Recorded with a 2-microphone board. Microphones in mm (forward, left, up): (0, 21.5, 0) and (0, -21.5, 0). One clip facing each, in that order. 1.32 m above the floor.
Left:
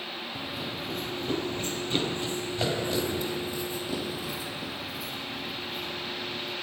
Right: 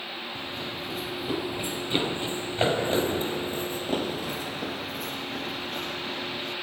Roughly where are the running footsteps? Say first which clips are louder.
Left 1 dB; centre.